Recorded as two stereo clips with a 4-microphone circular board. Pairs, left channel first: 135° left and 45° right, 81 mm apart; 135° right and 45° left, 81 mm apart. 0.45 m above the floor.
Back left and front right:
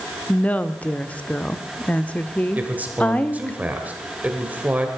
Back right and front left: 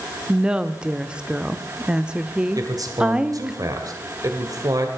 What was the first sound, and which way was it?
A woman speaking, 105° left.